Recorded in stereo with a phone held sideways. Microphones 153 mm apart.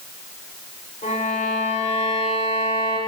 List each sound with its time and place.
1.0 s a violin: 55° left (ahead or behind), 2.5 m